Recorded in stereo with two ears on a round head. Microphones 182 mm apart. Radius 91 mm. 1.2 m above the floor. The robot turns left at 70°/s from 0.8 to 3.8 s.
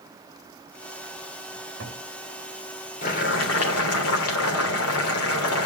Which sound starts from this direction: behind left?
Boiling, at 3.0 s.